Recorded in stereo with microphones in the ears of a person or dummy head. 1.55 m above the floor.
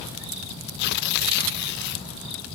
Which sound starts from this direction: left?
Tearing paper, at 0.8 s.